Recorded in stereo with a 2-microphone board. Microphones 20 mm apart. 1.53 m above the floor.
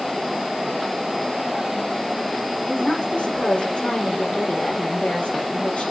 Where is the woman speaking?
75° left (ahead or behind), 6 m.